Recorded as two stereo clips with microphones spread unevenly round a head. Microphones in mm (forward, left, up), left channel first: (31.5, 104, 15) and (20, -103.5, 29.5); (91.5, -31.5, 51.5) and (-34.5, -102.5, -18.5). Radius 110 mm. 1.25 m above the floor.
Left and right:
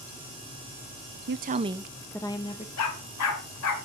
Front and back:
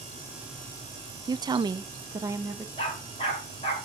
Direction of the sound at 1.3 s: 120° right.